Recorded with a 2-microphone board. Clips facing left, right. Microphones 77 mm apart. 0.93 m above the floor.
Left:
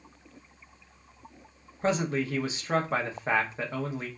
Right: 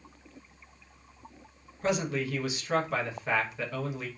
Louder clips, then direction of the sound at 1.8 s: Left 2 dB; 35° left (ahead or behind).